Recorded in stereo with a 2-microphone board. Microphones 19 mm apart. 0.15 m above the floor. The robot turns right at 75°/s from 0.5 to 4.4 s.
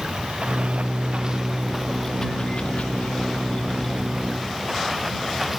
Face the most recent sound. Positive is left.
turn(degrees=-170)